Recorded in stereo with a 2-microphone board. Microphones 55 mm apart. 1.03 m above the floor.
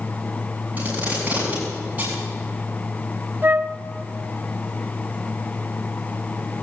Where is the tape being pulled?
30° right (ahead or behind), 7 m.